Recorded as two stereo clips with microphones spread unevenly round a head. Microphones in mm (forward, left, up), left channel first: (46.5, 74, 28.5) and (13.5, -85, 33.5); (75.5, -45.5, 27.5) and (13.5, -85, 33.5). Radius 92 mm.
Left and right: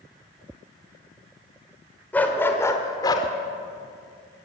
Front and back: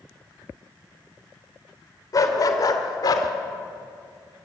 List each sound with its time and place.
2.1 s a dog barking: 5° right, 2.5 m; by 3.3 s 20° left, 1.9 m